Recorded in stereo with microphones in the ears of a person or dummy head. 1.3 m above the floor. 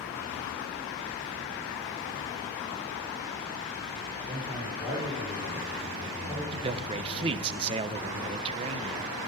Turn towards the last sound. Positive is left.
turn(degrees=-30)  # may be behind; listen again after turning